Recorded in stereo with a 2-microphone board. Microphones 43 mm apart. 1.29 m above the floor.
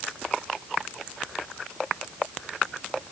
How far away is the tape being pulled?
I don't hear tape being pulled.